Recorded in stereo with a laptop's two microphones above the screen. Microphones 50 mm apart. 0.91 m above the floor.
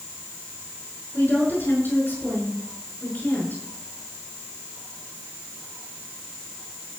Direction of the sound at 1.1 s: 45° left (ahead or behind).